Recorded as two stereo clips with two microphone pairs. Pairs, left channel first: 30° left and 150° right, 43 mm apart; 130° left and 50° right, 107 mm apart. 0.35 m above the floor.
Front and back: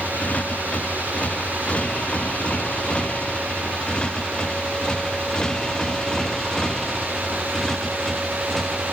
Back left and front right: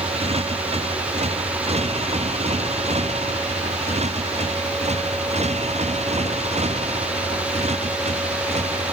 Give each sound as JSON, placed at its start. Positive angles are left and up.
{"t": 0.0, "sound": "a motorcycle", "azimuth_deg": -30}